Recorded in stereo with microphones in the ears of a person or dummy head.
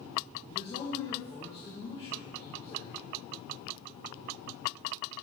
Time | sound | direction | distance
0.5 | a man speaking | 25° left (ahead or behind) | 1.3 m